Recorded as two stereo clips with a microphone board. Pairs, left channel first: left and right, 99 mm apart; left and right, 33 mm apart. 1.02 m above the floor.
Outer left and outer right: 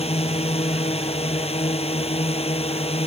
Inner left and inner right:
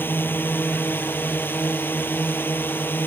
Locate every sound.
0.0 s a drone: 85° left; by 3.1 s 80° left